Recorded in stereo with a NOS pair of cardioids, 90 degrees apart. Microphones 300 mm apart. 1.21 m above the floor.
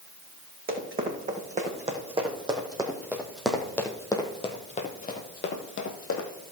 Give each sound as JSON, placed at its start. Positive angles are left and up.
{"t": 0.7, "sound": "running footsteps", "azimuth_deg": -30, "distance_m": 4.5}